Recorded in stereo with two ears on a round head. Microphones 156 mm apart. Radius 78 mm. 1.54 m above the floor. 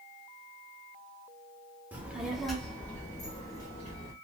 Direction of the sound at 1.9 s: 10° right (ahead or behind).